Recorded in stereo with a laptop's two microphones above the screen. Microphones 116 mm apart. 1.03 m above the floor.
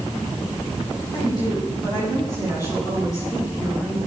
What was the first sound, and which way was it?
A woman speaking, 40° left (ahead or behind).